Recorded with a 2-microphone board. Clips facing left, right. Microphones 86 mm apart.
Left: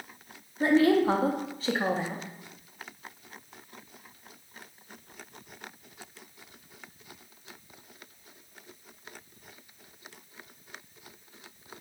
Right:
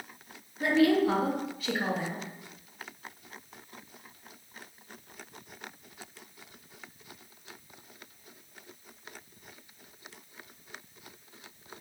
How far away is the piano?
No piano in this recording.